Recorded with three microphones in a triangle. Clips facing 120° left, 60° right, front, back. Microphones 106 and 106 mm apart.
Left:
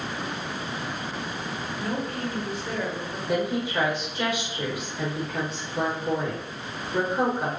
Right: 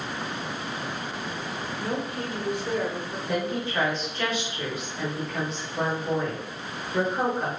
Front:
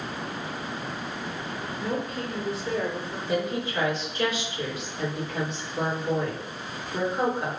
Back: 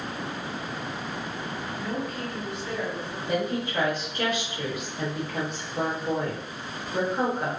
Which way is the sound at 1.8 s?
5° left.